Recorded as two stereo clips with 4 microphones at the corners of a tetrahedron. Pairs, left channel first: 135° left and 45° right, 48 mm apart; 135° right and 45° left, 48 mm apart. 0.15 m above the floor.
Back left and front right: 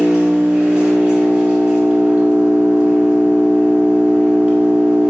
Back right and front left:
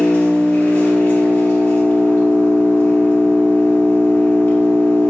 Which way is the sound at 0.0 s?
105° right.